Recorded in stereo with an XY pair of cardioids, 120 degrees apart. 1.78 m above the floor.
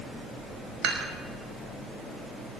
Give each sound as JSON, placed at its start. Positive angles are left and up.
{"t": 0.8, "sound": "dishes clattering", "azimuth_deg": -70, "distance_m": 6.0}